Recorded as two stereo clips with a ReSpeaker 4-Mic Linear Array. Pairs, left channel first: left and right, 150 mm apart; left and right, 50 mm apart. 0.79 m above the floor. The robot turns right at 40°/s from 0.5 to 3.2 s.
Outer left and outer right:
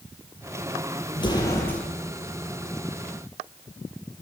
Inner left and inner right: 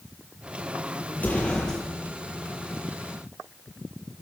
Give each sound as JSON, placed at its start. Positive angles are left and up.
{"t": 1.1, "sound": "an explosion", "side_deg": 35, "distance_m": 9.0}